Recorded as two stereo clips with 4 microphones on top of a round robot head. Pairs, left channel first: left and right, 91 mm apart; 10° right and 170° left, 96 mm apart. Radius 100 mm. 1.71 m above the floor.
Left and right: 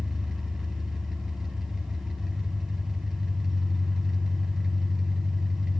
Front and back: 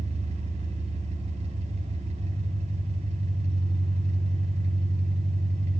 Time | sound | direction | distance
0.0 | an engine running | straight behind | 5 m